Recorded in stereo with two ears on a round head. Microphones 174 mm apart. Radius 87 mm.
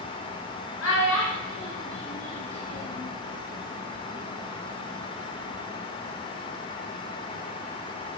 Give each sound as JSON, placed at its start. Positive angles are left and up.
{"t": 0.8, "sound": "a child speaking", "side_deg": 75, "distance_m": 1.5}